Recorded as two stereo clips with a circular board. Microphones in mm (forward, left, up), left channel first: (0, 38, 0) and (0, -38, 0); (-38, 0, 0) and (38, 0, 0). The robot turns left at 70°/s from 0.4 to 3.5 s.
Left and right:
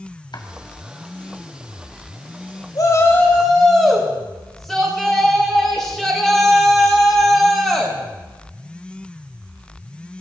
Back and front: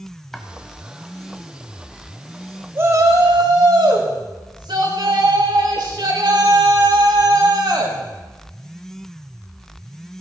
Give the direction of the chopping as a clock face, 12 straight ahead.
9 o'clock.